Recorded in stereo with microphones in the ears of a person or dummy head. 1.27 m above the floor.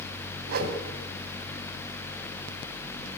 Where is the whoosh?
60° right (ahead or behind), 3 m.